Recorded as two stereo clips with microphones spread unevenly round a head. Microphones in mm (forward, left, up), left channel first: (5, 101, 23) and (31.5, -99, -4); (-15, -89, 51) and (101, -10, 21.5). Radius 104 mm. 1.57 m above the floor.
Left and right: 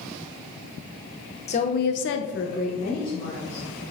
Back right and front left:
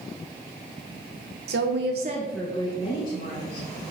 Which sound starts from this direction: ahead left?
A woman speaking, at 1.5 s.